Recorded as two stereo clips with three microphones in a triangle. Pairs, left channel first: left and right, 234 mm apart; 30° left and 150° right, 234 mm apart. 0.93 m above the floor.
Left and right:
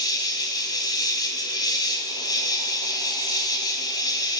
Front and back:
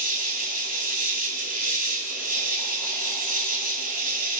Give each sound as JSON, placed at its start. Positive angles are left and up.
{"t": 0.0, "sound": "an insect", "azimuth_deg": 165, "distance_m": 1.6}